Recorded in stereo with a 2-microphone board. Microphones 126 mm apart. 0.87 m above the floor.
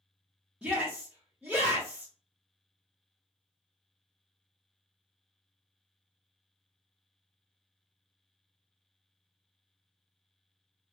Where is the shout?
10° right (ahead or behind), 0.8 m.